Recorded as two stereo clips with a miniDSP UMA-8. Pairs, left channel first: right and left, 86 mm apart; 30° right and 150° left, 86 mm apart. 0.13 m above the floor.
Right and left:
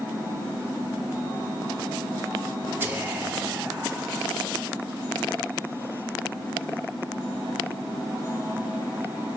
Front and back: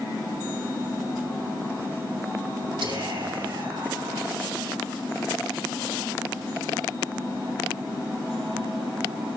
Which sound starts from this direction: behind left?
Whispering, at 2.8 s.